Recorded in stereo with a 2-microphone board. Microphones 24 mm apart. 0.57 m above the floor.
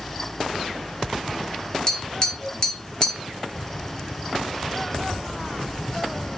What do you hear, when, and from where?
1.9 s tapping: 30° left (ahead or behind), 1.5 m